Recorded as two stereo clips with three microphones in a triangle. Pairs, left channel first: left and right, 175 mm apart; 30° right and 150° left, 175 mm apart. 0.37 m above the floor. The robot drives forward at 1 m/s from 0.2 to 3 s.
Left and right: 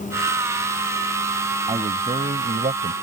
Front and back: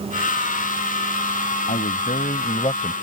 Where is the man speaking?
45° right; by 2.9 s 85° right.